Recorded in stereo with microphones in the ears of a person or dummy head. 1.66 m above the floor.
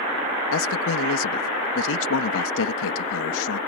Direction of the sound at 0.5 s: 85° left.